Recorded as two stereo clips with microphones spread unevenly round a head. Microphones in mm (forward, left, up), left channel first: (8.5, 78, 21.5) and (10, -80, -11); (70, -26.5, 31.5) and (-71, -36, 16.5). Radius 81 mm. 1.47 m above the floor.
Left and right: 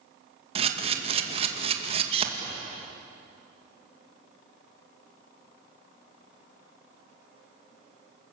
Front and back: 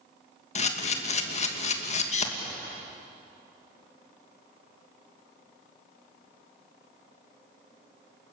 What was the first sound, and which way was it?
A camera shutter, 35° right.